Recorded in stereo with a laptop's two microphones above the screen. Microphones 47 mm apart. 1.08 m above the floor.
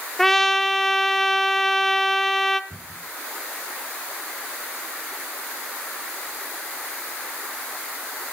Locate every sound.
0.2 s a trumpet: 5° left (ahead or behind), 0.7 m
2.7 s a cupboard door: 70° right (ahead or behind), 8 m